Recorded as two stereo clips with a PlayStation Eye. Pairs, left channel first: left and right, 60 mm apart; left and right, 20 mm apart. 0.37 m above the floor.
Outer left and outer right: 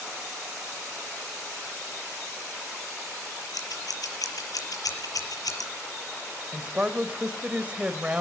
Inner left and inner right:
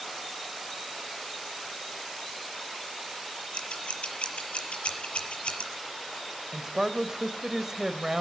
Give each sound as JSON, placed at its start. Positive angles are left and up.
{"t": 3.5, "sound": "scissors", "side_deg": 85, "distance_m": 6.5}
{"t": 6.5, "sound": "a man speaking", "side_deg": -25, "distance_m": 1.7}